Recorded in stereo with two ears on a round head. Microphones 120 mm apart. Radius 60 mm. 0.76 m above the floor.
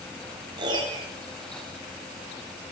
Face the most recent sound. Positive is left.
turn(degrees=-35)  # may be behind; listen again after turning